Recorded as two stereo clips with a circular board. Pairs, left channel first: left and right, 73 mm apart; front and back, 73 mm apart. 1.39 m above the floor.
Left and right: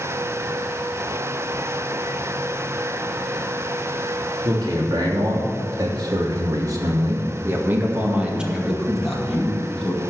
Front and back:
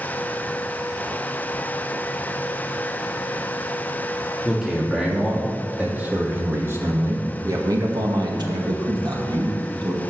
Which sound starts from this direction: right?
A man speaking, at 4.4 s.